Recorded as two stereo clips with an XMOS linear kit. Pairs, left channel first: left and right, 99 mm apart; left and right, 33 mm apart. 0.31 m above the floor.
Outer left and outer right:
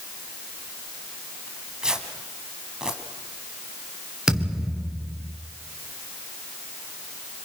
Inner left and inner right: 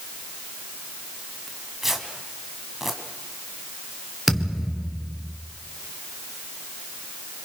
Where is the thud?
5° right (ahead or behind), 3 m.